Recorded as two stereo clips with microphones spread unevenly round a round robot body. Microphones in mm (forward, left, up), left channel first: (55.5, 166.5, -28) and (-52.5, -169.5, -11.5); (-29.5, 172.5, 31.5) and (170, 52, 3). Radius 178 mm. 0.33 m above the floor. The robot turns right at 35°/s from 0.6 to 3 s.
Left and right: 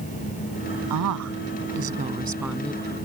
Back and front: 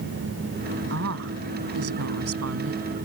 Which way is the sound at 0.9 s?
75° right.